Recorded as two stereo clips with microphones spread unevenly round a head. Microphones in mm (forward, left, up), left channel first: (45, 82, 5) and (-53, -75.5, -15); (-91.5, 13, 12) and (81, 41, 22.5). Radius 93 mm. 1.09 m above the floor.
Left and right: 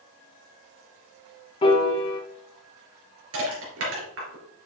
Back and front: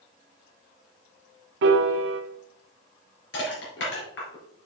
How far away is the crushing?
About 3.5 m.